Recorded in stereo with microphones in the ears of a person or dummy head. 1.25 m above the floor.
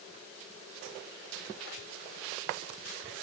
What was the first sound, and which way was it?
Only background noise.